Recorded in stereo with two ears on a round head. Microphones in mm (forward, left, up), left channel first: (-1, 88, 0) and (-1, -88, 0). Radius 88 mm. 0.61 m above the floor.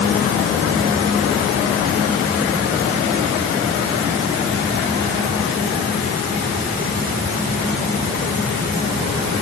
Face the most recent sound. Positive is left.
No sound to turn to.